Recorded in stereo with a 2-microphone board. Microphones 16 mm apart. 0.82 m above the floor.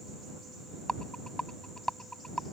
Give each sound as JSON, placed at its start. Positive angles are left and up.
{"t": 0.9, "sound": "a rattle", "side_deg": 50}